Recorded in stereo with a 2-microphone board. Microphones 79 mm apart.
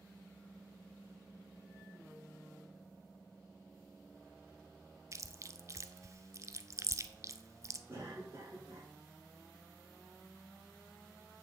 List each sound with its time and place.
5.1 s chewing: 40° right (ahead or behind), 0.6 m
7.9 s a cough: 35° right (ahead or behind), 5.5 m